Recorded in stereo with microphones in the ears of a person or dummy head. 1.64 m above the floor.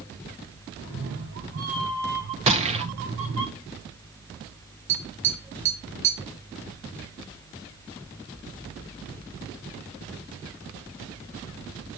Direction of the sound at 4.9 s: 15° right (ahead or behind).